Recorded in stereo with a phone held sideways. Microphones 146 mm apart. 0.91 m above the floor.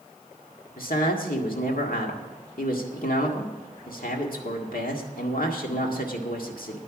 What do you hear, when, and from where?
0.8 s a man speaking: 80° left, 1.8 m